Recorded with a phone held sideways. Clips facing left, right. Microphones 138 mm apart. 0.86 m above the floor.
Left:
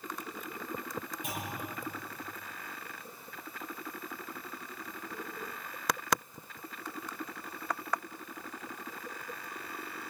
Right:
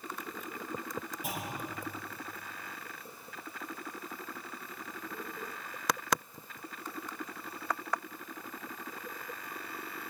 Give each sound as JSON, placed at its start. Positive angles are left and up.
{"t": 1.2, "sound": "a clunk", "side_deg": -5, "distance_m": 7.5}